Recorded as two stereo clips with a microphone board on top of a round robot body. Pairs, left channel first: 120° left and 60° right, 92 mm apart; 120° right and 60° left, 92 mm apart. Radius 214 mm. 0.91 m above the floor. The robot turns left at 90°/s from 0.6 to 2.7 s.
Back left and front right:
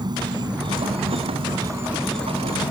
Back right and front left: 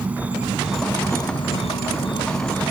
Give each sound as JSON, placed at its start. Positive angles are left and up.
{"t": 0.0, "sound": "an insect", "azimuth_deg": -15}